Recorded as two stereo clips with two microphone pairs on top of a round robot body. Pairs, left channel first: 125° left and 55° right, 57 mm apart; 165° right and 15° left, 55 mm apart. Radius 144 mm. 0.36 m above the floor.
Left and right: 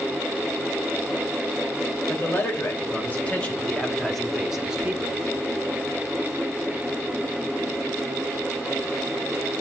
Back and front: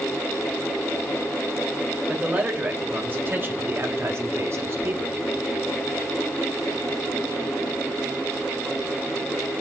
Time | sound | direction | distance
2.1 | a man speaking | 85° left | 3 m